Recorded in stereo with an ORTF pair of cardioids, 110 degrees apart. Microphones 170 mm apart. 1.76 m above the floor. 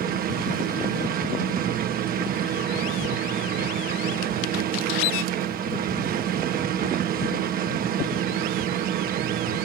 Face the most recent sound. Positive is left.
turn(degrees=-65)